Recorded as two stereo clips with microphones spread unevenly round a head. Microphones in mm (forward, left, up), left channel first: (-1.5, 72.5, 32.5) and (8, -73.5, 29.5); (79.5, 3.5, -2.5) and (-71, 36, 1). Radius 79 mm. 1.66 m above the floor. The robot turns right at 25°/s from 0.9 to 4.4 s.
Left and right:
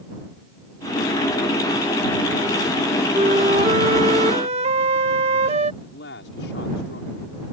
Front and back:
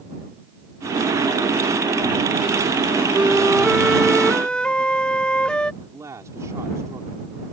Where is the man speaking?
95° left.